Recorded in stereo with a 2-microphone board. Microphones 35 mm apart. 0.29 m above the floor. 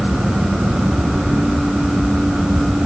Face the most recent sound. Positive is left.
No sound to turn to.